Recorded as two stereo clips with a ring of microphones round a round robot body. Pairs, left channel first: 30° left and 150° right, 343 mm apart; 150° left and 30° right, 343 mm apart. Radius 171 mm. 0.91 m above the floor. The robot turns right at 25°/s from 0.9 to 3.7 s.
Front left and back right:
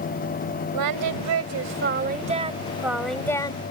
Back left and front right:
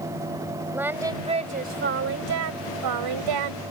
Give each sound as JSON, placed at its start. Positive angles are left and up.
{"t": 0.7, "sound": "singing", "azimuth_deg": -115}